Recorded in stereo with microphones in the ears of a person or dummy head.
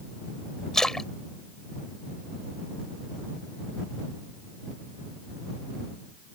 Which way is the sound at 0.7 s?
Centre (ahead or behind).